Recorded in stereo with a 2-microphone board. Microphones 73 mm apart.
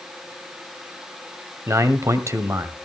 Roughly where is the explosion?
I don't hear an explosion.